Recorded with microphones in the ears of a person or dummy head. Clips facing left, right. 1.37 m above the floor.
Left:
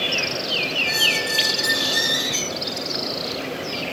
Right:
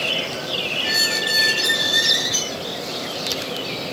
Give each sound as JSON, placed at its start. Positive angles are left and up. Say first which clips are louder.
{"t": 0.8, "sound": "a squeak", "louder": "even", "side_deg": 45, "distance_m": 2.5}